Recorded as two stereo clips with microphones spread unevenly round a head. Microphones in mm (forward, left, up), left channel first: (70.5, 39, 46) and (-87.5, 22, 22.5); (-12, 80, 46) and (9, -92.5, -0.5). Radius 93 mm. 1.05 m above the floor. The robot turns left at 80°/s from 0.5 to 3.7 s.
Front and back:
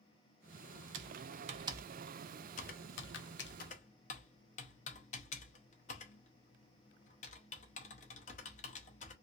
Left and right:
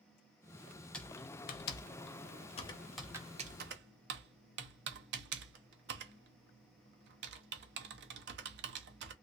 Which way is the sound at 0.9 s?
175° left.